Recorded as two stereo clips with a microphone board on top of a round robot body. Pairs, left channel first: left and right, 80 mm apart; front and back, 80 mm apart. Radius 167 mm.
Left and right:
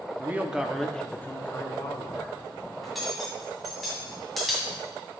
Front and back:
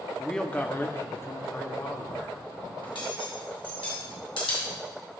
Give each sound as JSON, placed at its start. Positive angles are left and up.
{"t": 0.2, "sound": "a man speaking", "azimuth_deg": -80, "distance_m": 0.9}
{"t": 2.8, "sound": "cutlery clinking", "azimuth_deg": 0, "distance_m": 2.0}